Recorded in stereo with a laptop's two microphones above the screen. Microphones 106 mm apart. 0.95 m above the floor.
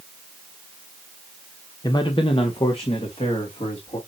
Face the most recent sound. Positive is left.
turn(degrees=65)  # may be behind; listen again after turning